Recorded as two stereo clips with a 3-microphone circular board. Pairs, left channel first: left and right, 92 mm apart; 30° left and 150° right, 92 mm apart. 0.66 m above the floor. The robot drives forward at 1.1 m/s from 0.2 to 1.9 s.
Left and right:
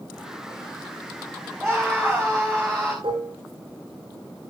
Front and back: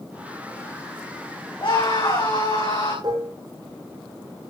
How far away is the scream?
About 7.5 m.